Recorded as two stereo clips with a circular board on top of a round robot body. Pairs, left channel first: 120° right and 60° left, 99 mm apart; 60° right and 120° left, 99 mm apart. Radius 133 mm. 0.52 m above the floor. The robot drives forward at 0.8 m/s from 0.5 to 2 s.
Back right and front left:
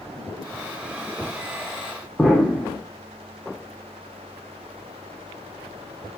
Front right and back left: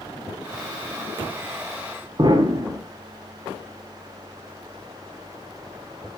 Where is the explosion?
155° left, 2 m.